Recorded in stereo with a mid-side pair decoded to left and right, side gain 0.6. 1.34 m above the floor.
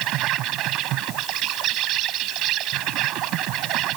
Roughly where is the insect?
Ahead right.